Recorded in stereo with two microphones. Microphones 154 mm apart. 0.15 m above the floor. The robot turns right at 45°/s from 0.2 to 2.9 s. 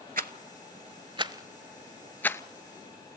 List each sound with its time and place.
0.2 s a rattle: 70° right (ahead or behind), 0.5 m; by 2.4 s 20° left (ahead or behind), 0.5 m